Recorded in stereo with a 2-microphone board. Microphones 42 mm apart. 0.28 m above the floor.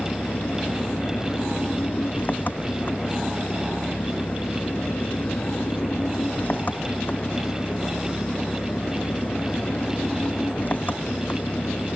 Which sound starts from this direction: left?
An engine running, at 0.0 s.